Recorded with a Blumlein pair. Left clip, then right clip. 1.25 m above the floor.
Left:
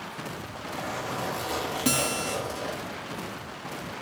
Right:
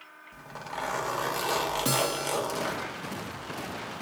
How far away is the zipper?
About 1.5 m.